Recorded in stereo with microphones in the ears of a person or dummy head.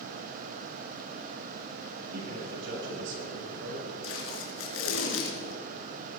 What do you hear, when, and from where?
2.1 s a man speaking: 70° right (ahead or behind), 8 m; by 3.9 s 75° right (ahead or behind), 6 m
4.0 s tape being pulled: 75° left (ahead or behind), 4 m